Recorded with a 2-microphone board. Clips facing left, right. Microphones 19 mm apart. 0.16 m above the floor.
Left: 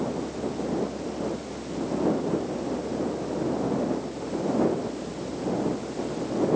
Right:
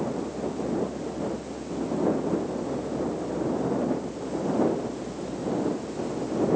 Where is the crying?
I don't hear crying.